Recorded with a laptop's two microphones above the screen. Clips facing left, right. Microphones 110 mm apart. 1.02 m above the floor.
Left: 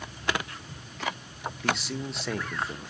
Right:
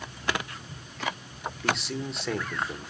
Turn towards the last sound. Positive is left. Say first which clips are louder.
# right 1 dB
turn(degrees=0)  # may be behind; listen again after turning